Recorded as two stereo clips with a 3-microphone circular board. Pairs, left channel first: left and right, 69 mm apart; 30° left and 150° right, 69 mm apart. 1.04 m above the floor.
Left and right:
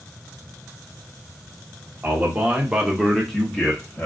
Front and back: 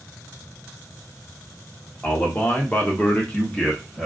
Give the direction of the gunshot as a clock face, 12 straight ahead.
I don't hear a gunshot.